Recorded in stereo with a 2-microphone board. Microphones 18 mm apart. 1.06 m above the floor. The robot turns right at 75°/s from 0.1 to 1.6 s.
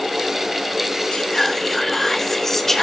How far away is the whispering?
About 2.5 m.